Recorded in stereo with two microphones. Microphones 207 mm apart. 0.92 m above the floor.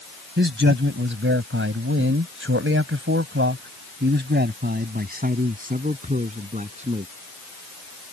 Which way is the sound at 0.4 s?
60° right (ahead or behind).